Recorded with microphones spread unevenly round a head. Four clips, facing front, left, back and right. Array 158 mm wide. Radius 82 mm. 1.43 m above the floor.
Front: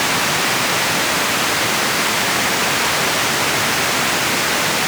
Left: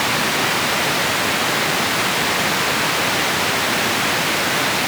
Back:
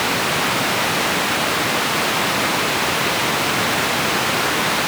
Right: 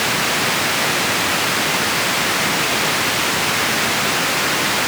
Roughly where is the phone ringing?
No phone ringing in this recording.